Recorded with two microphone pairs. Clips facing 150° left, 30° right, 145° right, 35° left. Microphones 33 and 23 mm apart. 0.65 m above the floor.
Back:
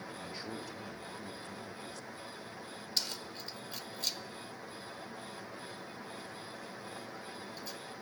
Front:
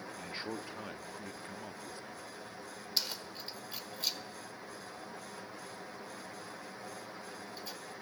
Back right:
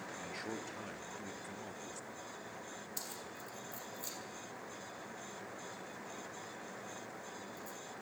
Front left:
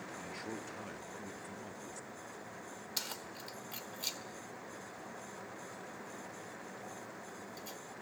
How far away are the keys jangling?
About 1.4 m.